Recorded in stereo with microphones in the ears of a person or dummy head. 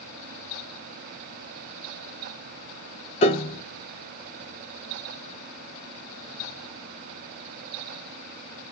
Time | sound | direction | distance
3.2 | a piano | 30° left (ahead or behind) | 0.5 m